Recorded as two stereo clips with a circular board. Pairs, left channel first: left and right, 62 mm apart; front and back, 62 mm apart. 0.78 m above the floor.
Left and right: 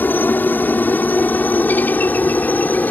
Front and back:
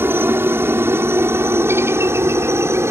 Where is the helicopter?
140° left; by 2.9 s 150° left.